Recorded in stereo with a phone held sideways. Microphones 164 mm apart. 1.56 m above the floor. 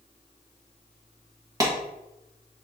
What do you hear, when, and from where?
1.6 s a clap: 25° right (ahead or behind), 1.1 m